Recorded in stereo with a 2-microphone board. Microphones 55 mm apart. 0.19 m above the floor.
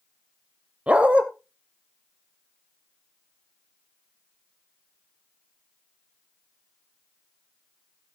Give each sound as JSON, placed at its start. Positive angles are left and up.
{"t": 0.9, "sound": "a dog barking", "side_deg": -25, "distance_m": 1.2}